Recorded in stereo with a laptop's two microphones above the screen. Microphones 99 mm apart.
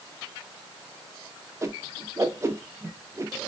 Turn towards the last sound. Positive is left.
turn(degrees=-30)  # may be behind; listen again after turning